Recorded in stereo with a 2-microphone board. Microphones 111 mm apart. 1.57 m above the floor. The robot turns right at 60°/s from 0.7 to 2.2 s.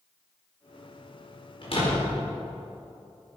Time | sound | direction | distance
1.6 | a door slam | 50° left (ahead or behind) | 5 m